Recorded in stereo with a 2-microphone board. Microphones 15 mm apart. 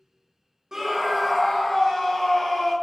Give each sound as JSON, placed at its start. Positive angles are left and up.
{"t": 0.7, "sound": "a scream", "side_deg": -35, "distance_m": 0.7}